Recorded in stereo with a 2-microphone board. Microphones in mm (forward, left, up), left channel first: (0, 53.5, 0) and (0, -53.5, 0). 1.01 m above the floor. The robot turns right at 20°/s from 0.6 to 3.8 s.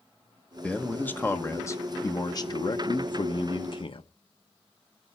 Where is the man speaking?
10° left, 1.2 m; by 4.1 s 75° left, 1.2 m.